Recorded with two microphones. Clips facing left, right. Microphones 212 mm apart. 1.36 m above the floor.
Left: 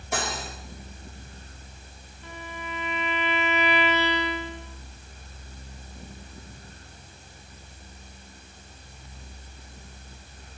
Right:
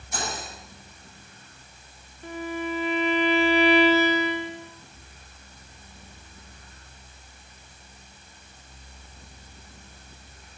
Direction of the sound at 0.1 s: 75° left (ahead or behind).